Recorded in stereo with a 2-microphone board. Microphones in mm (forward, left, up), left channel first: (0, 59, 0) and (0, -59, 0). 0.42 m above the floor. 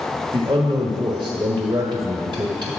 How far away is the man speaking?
About 1.2 m.